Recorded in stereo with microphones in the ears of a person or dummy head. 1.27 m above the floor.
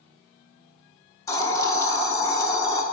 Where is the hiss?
15° left (ahead or behind), 1.2 m.